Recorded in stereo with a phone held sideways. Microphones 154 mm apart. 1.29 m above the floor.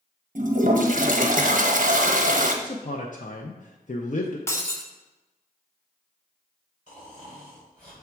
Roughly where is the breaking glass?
Centre.